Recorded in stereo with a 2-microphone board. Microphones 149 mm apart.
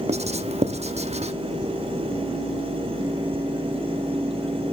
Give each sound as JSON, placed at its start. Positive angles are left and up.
{"t": 0.1, "sound": "writing", "side_deg": -45, "distance_m": 0.8}